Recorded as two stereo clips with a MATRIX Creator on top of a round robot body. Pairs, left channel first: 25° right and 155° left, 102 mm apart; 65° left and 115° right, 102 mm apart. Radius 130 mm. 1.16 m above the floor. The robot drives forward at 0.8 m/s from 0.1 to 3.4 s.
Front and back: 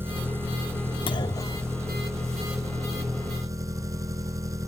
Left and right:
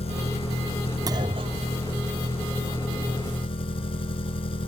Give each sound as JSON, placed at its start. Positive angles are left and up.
{"t": 0.0, "sound": "an engine running", "azimuth_deg": 85}
{"t": 1.1, "sound": "a clunk", "azimuth_deg": -60}